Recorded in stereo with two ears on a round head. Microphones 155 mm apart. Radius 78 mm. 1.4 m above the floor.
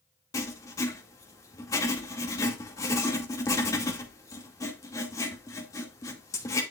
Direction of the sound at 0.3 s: 20° left (ahead or behind).